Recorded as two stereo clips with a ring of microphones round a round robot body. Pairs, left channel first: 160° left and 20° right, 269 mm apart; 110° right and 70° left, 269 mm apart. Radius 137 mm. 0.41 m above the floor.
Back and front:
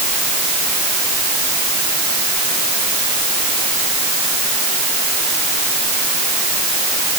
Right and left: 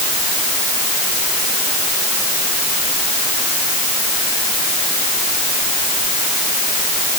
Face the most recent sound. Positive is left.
No sound to turn to.